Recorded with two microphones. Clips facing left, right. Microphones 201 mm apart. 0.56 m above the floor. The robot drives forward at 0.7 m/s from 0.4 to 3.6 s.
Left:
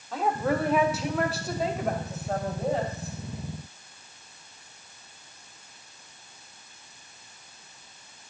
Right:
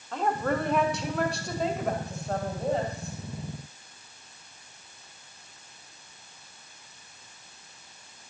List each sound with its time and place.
0.1 s a woman speaking: 5° left (ahead or behind), 1.1 m; by 3.1 s centre (ahead or behind), 3 m